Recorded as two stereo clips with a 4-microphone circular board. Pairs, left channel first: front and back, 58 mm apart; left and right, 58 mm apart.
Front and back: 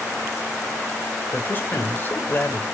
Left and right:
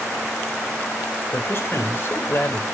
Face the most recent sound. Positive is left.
turn(degrees=50)